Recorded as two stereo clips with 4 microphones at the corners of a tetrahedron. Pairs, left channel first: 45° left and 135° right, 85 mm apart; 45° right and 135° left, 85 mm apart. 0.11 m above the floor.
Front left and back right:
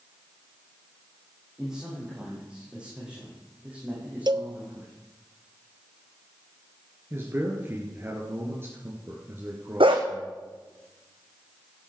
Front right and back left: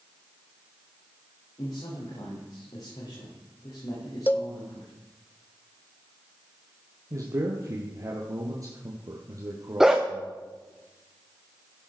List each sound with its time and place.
1.6 s a man speaking: 50° right, 7 m; by 4.9 s 65° right, 7 m
4.3 s a cowbell: 110° right, 0.8 m
7.1 s a man speaking: 170° left, 2.5 m
9.8 s a dog barking: 140° right, 2.5 m